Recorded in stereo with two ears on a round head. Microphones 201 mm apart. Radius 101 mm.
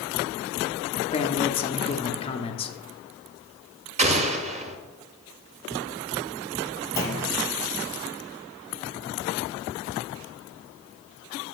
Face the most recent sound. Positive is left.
turn(degrees=15)  # may be behind; listen again after turning